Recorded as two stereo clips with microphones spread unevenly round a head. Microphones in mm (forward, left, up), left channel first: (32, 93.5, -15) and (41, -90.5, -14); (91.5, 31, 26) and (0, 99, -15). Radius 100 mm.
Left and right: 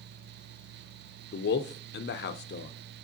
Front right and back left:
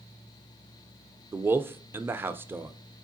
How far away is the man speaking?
About 0.5 m.